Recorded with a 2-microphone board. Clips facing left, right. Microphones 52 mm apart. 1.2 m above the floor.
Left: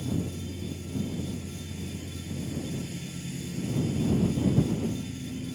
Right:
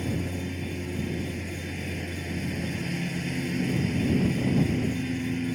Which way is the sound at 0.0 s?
55° right (ahead or behind).